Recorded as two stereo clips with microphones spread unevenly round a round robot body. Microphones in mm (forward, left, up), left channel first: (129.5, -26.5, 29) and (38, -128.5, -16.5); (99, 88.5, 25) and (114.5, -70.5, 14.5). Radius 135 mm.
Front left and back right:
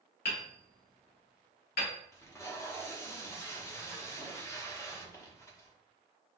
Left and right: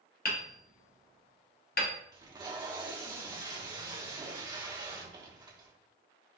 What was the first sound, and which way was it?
Hammering, 65° left.